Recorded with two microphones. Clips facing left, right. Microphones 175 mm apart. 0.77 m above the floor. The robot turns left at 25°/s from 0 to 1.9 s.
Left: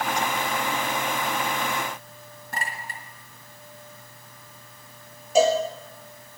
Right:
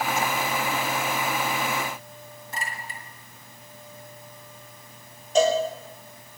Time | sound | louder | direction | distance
2.5 | a clink | left 2 dB | 70° left (ahead or behind) | 3.5 m
5.3 | a cowbell | left 1 dB | 10° left (ahead or behind) | 4.5 m